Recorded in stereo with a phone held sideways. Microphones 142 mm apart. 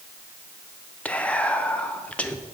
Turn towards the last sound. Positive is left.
turn(degrees=10)  # may be behind; listen again after turning